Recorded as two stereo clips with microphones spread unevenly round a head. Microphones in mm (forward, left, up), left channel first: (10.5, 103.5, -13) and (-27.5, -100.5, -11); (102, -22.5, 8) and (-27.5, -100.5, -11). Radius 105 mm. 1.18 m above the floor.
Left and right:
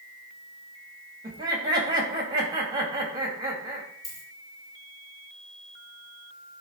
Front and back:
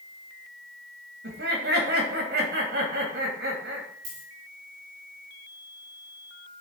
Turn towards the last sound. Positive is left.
turn(degrees=155)